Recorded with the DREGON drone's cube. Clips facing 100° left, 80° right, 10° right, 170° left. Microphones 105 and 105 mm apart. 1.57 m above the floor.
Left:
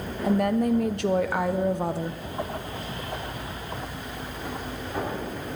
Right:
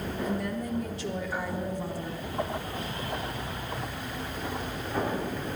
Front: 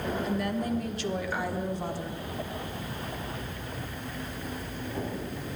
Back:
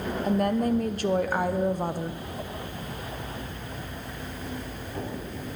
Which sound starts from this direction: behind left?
A woman speaking, at 0.2 s.